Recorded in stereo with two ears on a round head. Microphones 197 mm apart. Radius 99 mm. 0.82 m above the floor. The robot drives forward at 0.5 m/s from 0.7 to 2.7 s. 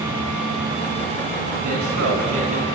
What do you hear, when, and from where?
1.6 s a man speaking: 75° right (ahead or behind), 10 m